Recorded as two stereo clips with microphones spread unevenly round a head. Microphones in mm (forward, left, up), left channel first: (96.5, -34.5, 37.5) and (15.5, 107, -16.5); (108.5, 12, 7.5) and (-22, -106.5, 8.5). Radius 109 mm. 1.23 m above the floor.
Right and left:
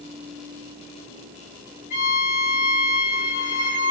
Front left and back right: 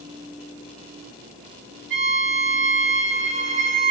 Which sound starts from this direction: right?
A violin, at 1.9 s.